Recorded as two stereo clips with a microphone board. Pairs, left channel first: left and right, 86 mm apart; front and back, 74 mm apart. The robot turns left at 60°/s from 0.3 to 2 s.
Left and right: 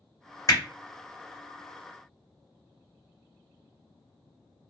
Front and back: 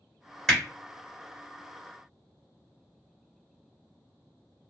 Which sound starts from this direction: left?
Hammering, at 0.5 s.